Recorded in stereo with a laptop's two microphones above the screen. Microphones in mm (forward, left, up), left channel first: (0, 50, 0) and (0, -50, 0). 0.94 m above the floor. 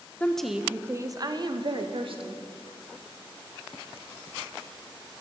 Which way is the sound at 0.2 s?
15° left (ahead or behind).